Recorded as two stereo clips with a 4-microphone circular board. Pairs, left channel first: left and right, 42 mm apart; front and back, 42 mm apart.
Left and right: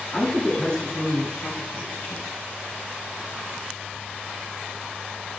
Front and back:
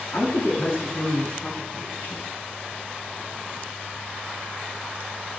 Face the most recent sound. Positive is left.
turn(degrees=65)